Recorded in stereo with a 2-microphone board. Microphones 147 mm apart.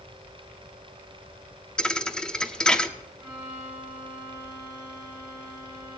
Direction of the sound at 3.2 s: 25° right (ahead or behind).